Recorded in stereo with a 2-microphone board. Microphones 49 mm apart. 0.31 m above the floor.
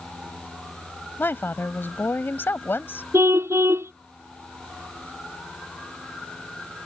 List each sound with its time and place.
1.2 s a woman speaking: 50° left (ahead or behind)
3.1 s a car horn: 60° right (ahead or behind)